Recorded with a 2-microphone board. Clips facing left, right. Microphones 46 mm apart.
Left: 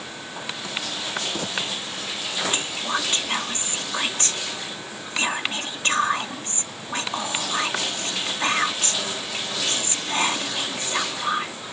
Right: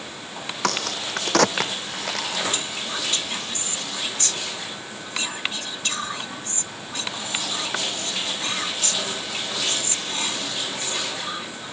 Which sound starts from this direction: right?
A crack, at 0.6 s.